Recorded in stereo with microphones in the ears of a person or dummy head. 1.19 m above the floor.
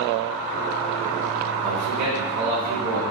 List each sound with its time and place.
1.6 s a man speaking: 85° right, 2.5 m